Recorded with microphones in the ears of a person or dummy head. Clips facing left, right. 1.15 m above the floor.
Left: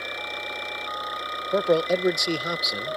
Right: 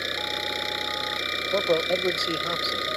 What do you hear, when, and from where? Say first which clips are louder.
0.0 s an engine running: right 3 dB; 30° right (ahead or behind)
1.5 s a man speaking: left 3 dB; 20° left (ahead or behind)